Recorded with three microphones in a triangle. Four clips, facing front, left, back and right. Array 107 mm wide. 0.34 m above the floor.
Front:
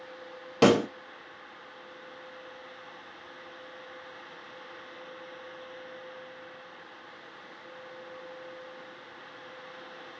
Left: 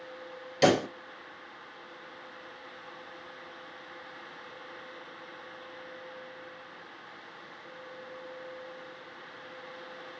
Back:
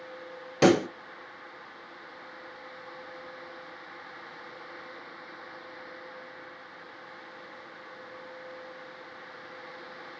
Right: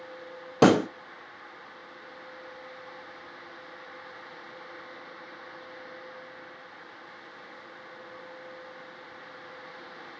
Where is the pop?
85° right, 0.8 m.